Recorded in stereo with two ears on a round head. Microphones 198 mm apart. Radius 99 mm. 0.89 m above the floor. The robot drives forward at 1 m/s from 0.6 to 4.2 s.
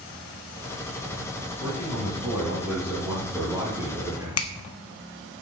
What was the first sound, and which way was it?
A man speaking, 5° right (ahead or behind).